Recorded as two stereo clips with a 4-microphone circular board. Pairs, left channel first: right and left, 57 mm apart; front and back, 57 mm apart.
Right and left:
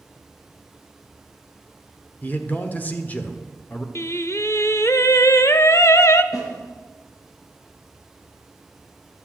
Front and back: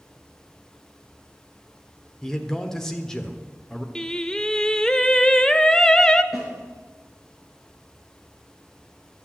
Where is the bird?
I don't hear a bird.